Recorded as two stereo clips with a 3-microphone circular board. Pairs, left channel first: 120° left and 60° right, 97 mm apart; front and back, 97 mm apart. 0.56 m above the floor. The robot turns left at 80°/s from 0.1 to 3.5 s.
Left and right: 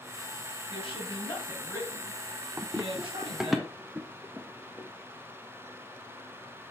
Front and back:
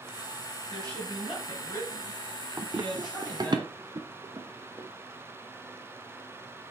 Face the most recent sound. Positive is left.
turn(degrees=-125)